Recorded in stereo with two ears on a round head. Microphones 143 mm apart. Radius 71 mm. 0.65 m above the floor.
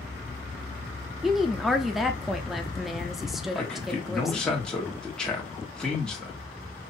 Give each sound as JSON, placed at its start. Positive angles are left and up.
{"t": 1.2, "sound": "a woman speaking", "side_deg": 0, "distance_m": 0.6}
{"t": 3.5, "sound": "a man speaking", "side_deg": 5, "distance_m": 1.5}